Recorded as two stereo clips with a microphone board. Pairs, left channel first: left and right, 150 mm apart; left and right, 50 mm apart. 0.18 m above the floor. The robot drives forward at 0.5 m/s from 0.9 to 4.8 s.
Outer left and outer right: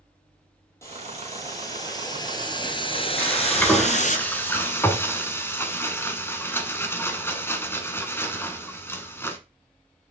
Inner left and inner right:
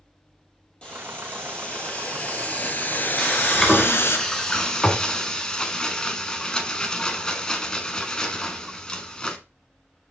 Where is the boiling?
20° left (ahead or behind), 2 m; by 4.2 s 60° left (ahead or behind), 0.8 m.